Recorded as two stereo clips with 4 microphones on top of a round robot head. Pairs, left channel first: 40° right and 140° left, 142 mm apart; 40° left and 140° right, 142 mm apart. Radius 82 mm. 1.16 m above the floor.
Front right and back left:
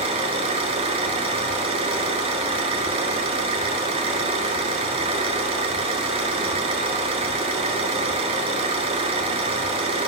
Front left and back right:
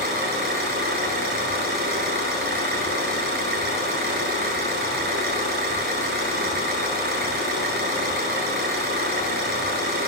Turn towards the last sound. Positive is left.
turn(degrees=-165)